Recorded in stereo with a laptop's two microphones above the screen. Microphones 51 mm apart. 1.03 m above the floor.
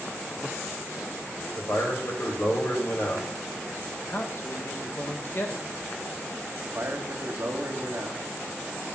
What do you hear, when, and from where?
1.6 s a man speaking: 60° left (ahead or behind), 1.9 m
4.0 s a man speaking: 50° left (ahead or behind), 0.6 m
6.6 s a man speaking: 55° right (ahead or behind), 1.2 m